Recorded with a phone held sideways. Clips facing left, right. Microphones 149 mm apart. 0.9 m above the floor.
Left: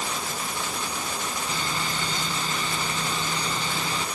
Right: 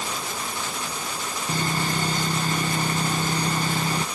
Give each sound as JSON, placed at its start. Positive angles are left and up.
{"t": 1.5, "sound": "sawing", "side_deg": -50}